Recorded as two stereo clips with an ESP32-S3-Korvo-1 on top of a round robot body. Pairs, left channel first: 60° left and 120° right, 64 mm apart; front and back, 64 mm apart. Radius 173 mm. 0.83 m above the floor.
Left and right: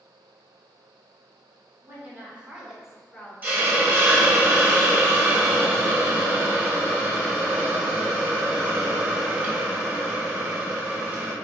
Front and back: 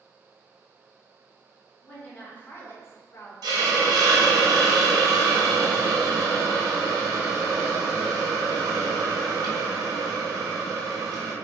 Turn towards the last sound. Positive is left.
turn(degrees=170)